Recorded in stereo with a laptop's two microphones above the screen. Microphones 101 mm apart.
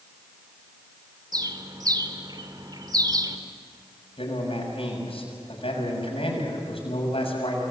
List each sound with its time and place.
1.3 s a bird: 45° right (ahead or behind), 2 m
4.2 s a man speaking: 80° left, 7 m